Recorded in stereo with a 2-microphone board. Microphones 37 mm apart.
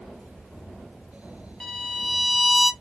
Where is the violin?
Centre (ahead or behind), 0.6 m.